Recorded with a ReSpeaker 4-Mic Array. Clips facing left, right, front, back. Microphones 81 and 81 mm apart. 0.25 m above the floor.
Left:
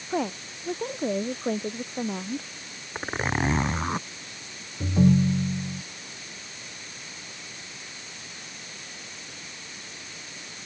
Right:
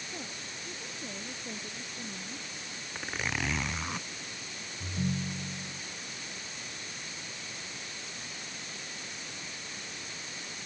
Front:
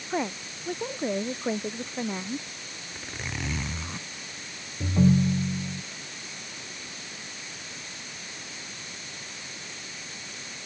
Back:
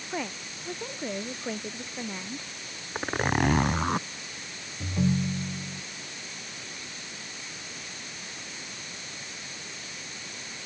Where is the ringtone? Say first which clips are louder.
Left 14 dB, front 5 dB; 70° left.